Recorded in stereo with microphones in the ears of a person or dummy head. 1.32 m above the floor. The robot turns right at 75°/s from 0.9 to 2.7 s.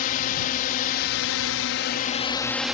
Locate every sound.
0.0 s a drone: 50° left; by 2.7 s 175° right